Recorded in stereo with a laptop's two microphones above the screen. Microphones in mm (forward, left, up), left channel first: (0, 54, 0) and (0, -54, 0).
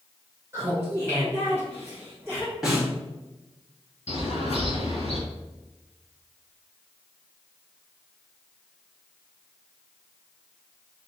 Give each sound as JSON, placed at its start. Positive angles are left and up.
{"t": 0.5, "sound": "laughter", "side_deg": -25, "distance_m": 1.0}
{"t": 2.6, "sound": "a snare drum", "side_deg": -5, "distance_m": 1.5}
{"t": 4.1, "sound": "a bird", "side_deg": 75, "distance_m": 1.9}